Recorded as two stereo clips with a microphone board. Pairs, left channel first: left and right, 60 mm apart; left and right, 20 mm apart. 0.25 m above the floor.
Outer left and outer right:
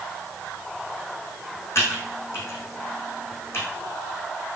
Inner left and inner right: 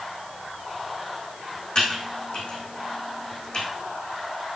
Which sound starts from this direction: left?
Typing on a keyboard, at 1.8 s.